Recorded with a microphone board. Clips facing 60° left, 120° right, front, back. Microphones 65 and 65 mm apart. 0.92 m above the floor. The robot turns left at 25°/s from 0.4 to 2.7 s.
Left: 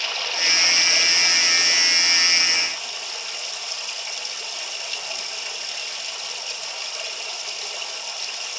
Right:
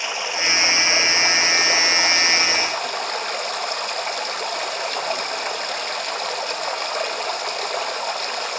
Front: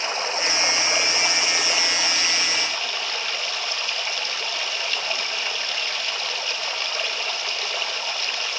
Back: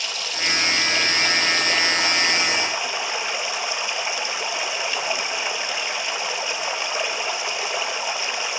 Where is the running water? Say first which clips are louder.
Right 3 dB, front 3 dB; 55° right, 0.9 m; by 8.6 s 110° right, 0.9 m.